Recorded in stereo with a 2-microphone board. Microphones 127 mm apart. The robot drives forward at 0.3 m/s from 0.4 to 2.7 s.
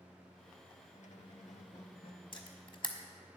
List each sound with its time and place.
0.9 s a squeak: 75° left (ahead or behind), 0.6 m; by 2.2 s 45° left (ahead or behind), 0.8 m
2.3 s a camera shutter: 40° left (ahead or behind), 1.2 m